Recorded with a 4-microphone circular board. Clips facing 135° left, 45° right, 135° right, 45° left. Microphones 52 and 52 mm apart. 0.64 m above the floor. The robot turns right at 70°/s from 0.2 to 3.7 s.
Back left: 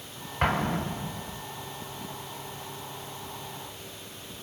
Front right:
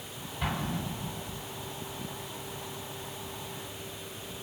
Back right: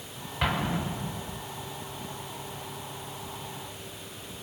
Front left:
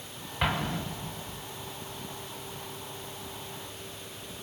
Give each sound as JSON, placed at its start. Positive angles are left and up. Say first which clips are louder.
{"t": 0.4, "sound": "an explosion", "louder": "back left 7 dB, back right 1 dB", "azimuth_deg": 130, "distance_m": 0.5}